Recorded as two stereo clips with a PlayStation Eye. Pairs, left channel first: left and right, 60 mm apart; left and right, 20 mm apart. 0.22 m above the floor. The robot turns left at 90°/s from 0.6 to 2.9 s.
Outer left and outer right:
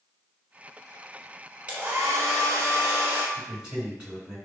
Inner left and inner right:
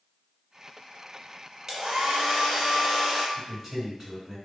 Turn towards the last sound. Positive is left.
turn(degrees=-20)  # may be behind; listen again after turning